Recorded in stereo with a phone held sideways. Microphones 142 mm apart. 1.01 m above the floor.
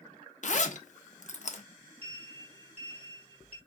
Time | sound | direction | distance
0.4 | a zipper | 60° left (ahead or behind) | 0.6 m
2.0 | a sliding door | 45° right (ahead or behind) | 1.3 m